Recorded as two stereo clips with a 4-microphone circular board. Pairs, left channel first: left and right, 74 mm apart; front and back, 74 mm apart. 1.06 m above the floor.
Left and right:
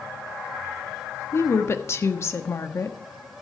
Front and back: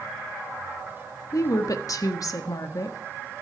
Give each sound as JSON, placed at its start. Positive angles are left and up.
{"t": 1.3, "sound": "a woman speaking", "azimuth_deg": 35, "distance_m": 1.4}